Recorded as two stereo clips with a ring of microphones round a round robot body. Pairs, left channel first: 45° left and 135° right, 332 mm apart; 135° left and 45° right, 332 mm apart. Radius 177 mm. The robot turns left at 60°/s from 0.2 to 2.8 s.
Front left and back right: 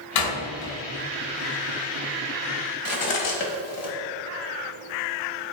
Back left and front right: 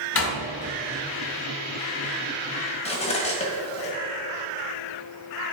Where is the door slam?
85° left, 2 m; by 0.8 s 50° left, 2 m.